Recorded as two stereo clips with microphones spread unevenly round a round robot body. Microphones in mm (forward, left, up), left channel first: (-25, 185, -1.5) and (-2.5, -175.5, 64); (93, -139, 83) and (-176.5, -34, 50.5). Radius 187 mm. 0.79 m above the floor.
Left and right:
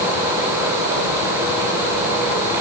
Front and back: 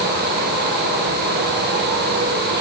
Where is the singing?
I don't hear singing.